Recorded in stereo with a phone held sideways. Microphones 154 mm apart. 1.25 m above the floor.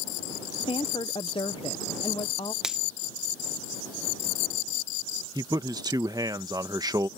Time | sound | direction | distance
0.6 | a woman speaking | 35° left (ahead or behind) | ?
2.6 | a finger snap | 5° right (ahead or behind) | ?
5.3 | a man speaking | 25° right (ahead or behind) | ?